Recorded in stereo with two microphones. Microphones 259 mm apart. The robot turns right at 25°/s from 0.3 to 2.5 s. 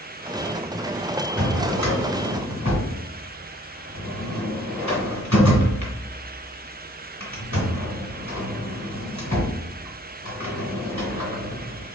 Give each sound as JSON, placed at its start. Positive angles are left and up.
{"t": 1.4, "sound": "a drawer", "side_deg": 55, "distance_m": 2.0}